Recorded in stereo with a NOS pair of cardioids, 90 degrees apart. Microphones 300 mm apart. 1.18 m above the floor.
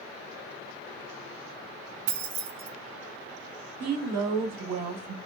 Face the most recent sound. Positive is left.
turn(degrees=-65)